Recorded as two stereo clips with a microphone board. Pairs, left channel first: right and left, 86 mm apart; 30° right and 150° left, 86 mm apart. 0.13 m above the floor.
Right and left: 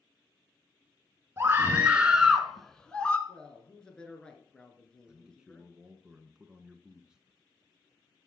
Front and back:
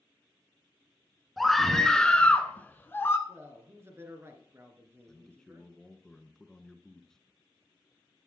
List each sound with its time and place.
1.4 s a scream: 60° left, 1.3 m; by 3.2 s 30° right, 1.3 m
3.3 s a man speaking: 165° right, 2.5 m
5.1 s a man speaking: 35° left, 1.0 m